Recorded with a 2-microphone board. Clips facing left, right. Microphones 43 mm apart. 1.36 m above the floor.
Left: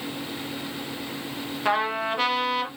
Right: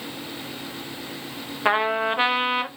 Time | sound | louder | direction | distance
1.6 | a trumpet | right 3 dB | 25° right (ahead or behind) | 0.7 m